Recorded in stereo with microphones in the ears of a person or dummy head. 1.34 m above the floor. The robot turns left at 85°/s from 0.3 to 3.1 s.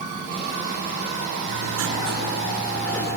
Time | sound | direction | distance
1.4 | writing | 70° right | 9.5 m